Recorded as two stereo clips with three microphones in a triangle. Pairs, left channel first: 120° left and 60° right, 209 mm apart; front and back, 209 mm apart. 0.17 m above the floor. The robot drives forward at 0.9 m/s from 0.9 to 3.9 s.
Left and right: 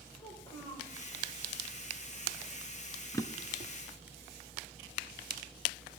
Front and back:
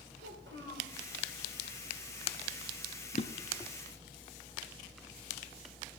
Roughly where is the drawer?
Ahead left.